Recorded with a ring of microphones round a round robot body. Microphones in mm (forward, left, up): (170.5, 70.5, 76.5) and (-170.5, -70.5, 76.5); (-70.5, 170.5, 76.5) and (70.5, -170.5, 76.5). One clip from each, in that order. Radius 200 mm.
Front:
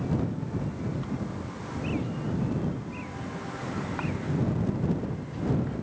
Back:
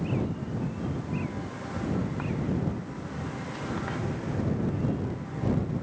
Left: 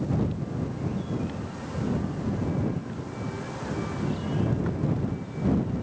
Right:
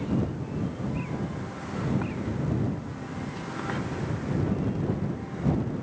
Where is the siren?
I don't hear a siren.